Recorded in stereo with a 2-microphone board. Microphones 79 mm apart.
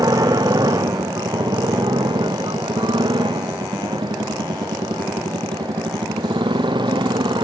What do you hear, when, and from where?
0.0 s a motorcycle: 55° right (ahead or behind); by 7.4 s 85° right